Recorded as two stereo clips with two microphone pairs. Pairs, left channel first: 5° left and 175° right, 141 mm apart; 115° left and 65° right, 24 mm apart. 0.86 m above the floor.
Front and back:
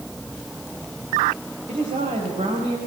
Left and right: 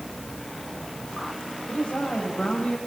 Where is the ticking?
No ticking in this recording.